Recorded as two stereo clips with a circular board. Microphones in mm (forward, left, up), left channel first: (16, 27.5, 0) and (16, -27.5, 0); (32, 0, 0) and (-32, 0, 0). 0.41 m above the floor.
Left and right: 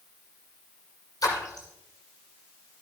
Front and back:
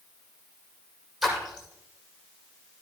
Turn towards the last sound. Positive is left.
turn(degrees=95)